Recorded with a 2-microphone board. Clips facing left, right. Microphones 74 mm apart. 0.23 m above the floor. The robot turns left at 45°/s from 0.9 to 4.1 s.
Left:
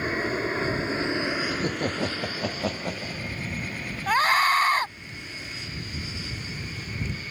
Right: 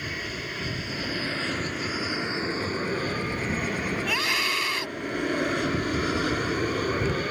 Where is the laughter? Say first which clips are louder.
Left 2 dB; 140° left; by 3.4 s 55° left.